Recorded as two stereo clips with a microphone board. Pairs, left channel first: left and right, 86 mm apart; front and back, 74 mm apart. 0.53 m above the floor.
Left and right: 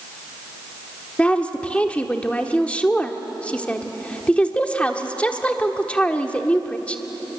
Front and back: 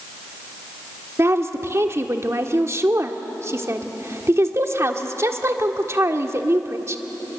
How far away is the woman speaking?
About 1.4 m.